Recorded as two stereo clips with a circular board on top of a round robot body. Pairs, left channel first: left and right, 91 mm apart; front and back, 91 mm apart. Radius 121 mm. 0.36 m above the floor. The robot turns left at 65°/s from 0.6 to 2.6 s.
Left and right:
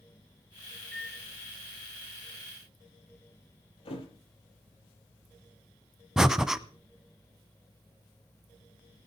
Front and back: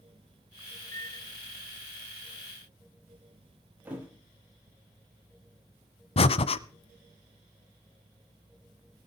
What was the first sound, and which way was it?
A microwave, 10° left.